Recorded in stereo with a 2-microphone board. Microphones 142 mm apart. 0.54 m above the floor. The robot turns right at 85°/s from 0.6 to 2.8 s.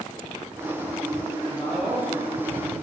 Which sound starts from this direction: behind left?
A man speaking, at 1.5 s.